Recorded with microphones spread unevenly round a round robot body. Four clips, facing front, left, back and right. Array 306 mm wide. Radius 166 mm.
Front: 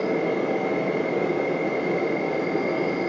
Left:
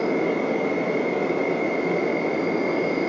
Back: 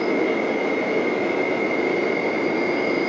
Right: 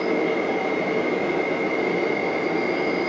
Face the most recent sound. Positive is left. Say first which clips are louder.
# even, back 2 dB
turn(degrees=70)